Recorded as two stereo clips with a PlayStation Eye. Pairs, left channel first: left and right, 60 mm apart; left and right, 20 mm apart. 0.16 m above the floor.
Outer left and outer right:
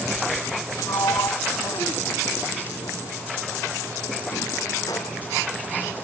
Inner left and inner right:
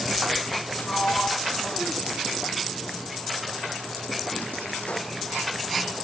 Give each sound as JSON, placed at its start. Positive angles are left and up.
{"t": 0.8, "sound": "a sliding door", "side_deg": 80}